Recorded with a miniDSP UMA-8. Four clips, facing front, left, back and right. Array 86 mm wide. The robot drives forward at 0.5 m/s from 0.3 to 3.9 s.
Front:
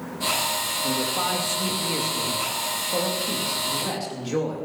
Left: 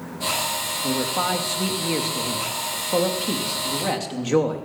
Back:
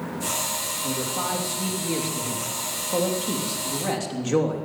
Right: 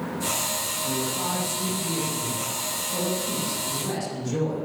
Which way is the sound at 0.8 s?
80° left.